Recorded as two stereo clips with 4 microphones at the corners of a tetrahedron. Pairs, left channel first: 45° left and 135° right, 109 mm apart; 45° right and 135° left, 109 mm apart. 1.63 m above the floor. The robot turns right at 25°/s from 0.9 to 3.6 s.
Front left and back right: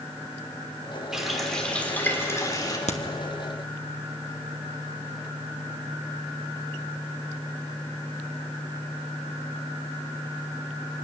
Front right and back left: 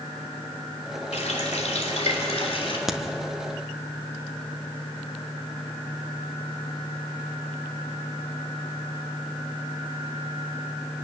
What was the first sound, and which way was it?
A running tap, 50° right.